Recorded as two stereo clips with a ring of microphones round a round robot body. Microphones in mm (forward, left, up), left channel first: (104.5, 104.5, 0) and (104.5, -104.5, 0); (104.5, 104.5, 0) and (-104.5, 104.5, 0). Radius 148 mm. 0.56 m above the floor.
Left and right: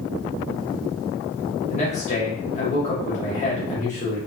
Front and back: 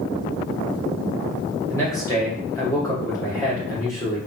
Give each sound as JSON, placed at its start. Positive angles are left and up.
{"t": 1.7, "sound": "a man speaking", "azimuth_deg": 65, "distance_m": 0.9}